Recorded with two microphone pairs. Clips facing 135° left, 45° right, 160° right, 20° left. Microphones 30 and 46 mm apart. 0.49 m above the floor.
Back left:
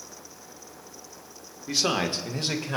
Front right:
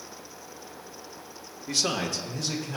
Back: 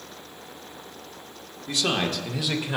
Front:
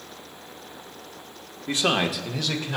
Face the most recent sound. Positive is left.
turn(degrees=130)